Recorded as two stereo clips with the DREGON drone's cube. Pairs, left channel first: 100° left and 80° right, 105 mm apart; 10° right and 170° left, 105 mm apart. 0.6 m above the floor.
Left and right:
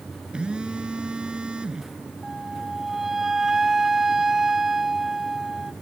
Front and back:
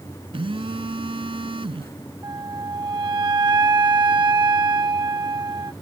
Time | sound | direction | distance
0.3 | a phone buzzing | 160° right | ?
2.2 | a flute | 165° right | ?